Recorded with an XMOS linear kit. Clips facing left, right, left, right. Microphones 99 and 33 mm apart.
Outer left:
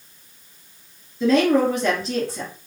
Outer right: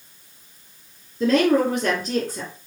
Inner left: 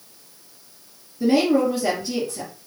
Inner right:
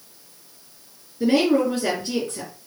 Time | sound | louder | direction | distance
1.2 | a woman speaking | outer left 1 dB, even | 40° right (ahead or behind) | 1.7 m